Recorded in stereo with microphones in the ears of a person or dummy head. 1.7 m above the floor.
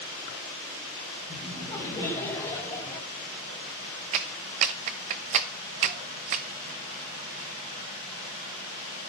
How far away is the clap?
About 1.0 m.